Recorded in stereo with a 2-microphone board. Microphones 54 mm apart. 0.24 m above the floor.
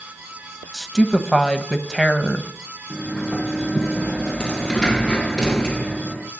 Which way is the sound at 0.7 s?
5° left (ahead or behind).